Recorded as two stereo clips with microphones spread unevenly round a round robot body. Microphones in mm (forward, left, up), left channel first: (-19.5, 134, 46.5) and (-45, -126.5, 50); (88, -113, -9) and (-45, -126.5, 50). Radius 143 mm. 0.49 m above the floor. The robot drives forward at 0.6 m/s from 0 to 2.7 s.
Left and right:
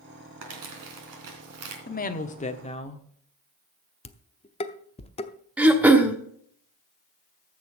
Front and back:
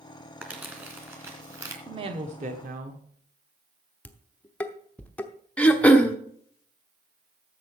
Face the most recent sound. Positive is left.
turn(degrees=-15)